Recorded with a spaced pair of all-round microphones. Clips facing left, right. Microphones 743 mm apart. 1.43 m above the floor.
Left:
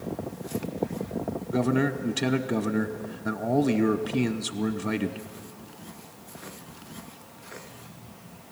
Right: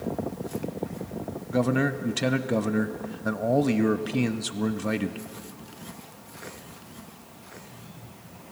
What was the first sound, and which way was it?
A man speaking, 10° right (ahead or behind).